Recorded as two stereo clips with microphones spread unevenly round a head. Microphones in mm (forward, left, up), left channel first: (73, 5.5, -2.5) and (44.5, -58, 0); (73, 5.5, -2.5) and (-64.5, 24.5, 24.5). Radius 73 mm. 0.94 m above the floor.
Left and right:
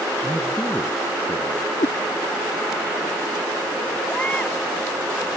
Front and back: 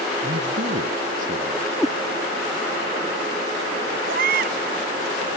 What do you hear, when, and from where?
0.2 s a man speaking: 145° left
1.8 s a cat meowing: 85° left
4.1 s a baby crying: 150° left